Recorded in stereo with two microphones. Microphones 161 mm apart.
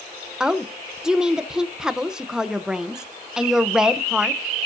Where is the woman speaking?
5° right (ahead or behind), 0.8 m.